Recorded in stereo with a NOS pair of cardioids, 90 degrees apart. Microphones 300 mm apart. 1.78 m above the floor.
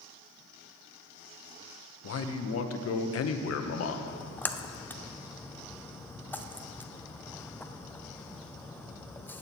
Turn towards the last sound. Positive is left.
turn(degrees=5)